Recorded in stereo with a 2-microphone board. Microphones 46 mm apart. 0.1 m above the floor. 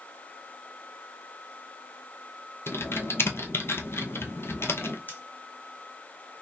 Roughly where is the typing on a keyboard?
Left.